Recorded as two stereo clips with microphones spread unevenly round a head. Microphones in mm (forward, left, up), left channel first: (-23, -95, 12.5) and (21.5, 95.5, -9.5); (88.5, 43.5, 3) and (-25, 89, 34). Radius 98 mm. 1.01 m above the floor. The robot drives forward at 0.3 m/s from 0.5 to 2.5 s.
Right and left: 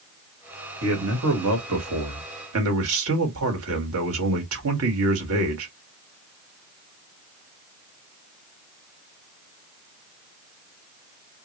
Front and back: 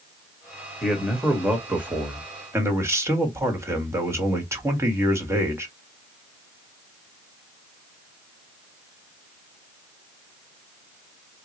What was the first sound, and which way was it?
A man speaking, 70° left.